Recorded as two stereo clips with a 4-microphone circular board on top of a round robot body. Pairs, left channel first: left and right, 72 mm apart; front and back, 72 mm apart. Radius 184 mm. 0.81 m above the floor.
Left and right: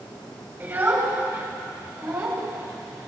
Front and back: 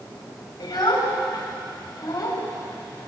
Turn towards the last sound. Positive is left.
turn(degrees=-50)